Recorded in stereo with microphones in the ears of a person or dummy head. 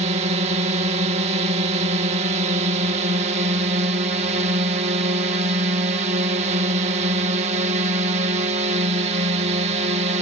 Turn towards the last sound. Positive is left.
turn(degrees=-45)  # may be behind; listen again after turning